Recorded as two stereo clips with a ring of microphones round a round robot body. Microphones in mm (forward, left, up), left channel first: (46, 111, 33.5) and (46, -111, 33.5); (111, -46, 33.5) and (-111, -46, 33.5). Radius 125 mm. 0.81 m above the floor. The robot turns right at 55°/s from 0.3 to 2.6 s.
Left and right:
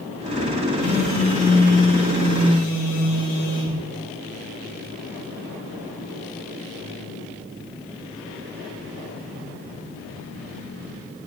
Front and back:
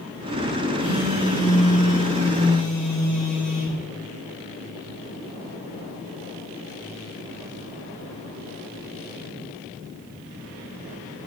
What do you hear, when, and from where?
0.8 s a phone buzzing: 15° right, 3 m; by 3.8 s 85° left, 3 m